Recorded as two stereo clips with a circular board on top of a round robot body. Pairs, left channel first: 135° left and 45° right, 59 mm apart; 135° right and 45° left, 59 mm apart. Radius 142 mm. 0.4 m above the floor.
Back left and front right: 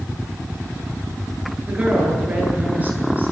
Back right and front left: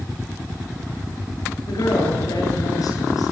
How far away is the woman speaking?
About 10 m.